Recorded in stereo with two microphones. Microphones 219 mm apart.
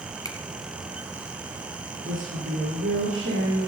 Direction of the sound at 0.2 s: 15° left (ahead or behind).